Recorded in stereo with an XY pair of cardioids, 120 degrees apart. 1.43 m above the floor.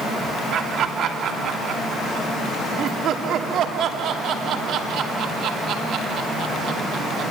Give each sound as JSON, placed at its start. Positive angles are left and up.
{"t": 0.5, "sound": "laughter", "azimuth_deg": -65, "distance_m": 3.0}